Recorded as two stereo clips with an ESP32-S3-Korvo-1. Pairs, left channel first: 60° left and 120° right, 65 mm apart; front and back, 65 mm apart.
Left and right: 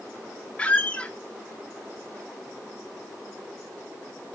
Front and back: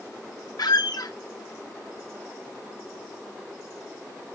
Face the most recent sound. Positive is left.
turn(degrees=-10)